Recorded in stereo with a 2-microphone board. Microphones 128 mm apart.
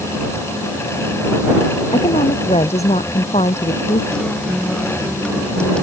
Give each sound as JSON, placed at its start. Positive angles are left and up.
{"t": 1.9, "sound": "a woman speaking", "side_deg": 55}
{"t": 4.1, "sound": "a guitar", "side_deg": 5}